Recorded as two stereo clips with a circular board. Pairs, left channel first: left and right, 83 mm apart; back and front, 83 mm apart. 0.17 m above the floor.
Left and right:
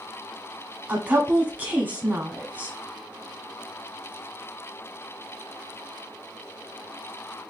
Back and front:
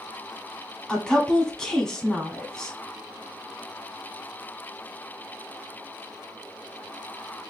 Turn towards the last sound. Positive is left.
turn(degrees=-115)